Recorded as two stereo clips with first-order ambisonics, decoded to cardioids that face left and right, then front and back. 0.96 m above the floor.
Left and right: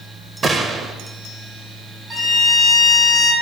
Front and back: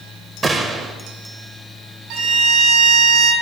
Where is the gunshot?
130° right, 0.7 m.